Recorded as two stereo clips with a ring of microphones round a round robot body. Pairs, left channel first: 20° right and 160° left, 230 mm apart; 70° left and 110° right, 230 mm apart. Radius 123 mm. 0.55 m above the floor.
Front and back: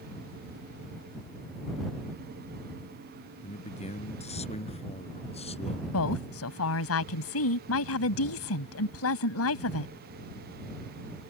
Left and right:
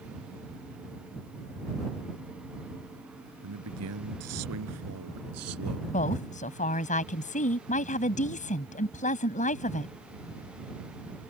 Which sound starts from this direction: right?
A man speaking, at 3.4 s.